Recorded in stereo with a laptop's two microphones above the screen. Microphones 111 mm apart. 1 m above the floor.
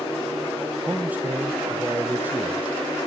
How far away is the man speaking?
About 0.6 m.